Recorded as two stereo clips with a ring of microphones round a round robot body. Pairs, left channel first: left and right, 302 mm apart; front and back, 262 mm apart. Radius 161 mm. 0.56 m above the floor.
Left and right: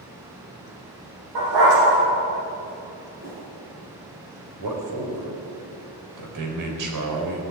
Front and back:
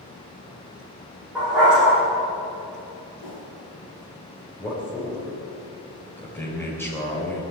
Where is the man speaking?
80° right, 3.5 m.